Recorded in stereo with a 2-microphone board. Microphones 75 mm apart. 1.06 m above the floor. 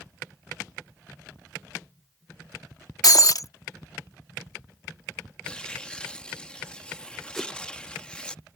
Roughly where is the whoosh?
Centre.